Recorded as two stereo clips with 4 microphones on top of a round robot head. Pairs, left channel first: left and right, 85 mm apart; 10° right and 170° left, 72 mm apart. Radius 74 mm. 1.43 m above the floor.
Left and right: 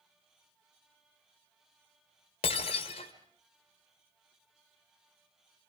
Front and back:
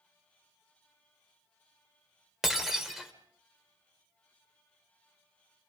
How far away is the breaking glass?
About 2.0 m.